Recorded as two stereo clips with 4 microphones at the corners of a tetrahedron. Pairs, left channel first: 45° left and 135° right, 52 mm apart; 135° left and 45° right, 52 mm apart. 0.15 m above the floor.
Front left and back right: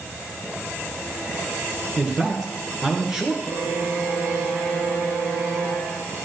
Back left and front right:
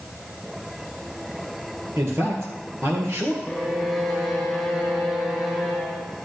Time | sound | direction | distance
2.0 | a man speaking | 55° right | 2.5 m
3.4 | a violin | 125° right | 3.5 m